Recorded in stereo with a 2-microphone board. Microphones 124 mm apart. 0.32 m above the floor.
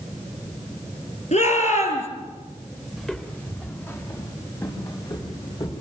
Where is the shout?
65° left (ahead or behind), 6.5 m.